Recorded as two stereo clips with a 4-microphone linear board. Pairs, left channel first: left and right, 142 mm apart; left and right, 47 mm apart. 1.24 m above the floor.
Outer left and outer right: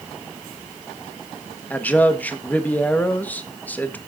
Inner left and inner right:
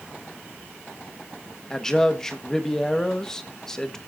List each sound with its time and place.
1.7 s a man speaking: 10° left (ahead or behind), 1.4 m